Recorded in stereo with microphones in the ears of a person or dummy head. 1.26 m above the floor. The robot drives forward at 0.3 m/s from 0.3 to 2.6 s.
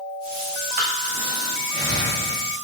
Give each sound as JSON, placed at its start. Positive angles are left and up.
{"t": 0.7, "sound": "breathing", "side_deg": -40, "distance_m": 0.6}